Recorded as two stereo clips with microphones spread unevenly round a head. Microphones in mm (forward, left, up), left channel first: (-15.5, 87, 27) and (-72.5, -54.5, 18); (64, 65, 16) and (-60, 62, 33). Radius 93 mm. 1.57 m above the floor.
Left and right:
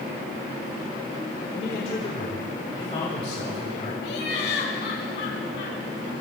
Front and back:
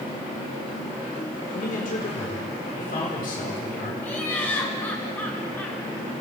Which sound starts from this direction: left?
Laughter, at 4.0 s.